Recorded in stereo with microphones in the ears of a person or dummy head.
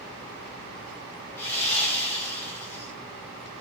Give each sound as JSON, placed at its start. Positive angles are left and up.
{"t": 1.4, "sound": "sawing", "side_deg": 5, "distance_m": 7.5}